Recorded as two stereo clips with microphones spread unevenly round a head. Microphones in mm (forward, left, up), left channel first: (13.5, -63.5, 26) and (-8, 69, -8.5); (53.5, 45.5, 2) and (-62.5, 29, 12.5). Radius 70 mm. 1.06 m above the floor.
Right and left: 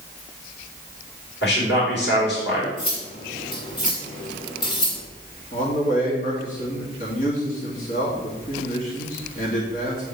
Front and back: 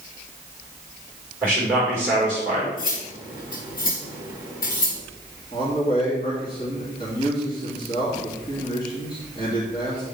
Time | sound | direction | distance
1.4 | a man speaking | 95° right | 4.5 m
2.8 | cutlery clinking | 25° right | 3 m
5.5 | a man speaking | 50° right | 2.5 m